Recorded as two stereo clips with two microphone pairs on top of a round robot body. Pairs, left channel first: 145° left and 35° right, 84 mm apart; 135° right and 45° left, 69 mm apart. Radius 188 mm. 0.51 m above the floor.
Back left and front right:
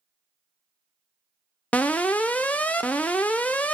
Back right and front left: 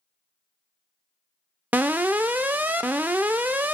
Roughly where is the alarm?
Left.